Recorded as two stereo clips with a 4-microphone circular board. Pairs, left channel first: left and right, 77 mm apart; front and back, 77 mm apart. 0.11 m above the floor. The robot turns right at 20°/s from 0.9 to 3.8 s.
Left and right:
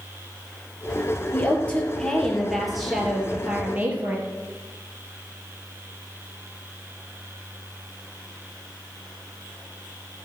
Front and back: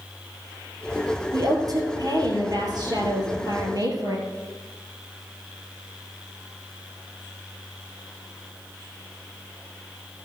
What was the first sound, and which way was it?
A woman speaking, 155° left.